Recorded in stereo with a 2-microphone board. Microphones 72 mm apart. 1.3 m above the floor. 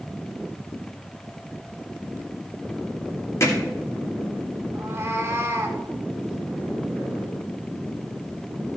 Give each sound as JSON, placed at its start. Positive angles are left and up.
{"t": 3.4, "sound": "hammering", "side_deg": 40, "distance_m": 2.0}
{"t": 4.8, "sound": "a cat meowing", "side_deg": -35, "distance_m": 1.3}